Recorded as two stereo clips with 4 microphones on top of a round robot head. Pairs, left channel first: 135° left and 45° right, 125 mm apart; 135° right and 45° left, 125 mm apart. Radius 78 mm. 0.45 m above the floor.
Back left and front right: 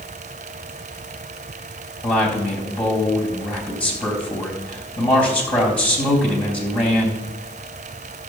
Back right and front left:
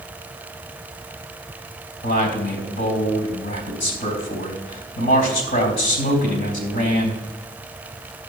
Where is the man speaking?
145° right, 4 m.